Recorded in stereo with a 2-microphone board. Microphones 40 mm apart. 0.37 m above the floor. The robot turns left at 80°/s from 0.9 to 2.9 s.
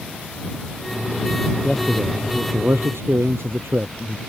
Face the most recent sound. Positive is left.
turn(degrees=-85)